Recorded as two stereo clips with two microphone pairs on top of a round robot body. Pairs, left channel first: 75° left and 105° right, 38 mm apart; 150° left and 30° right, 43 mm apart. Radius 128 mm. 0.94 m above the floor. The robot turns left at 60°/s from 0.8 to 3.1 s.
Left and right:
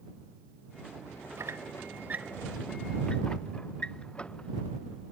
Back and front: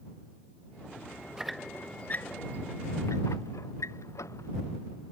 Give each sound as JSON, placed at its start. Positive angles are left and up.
{"t": 1.4, "sound": "a squeak", "azimuth_deg": -110}